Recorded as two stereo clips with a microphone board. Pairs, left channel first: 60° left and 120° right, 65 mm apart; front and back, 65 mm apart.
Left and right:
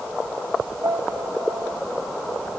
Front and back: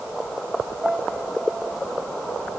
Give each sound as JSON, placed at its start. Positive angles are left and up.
{"t": 0.8, "sound": "a piano", "azimuth_deg": -105}